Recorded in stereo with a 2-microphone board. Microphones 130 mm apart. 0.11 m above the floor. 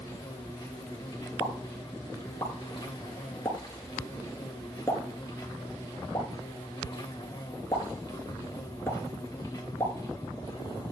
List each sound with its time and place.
0.0 s an insect: 30° left (ahead or behind), 2.5 m
1.4 s a pop: 20° left (ahead or behind), 1.7 m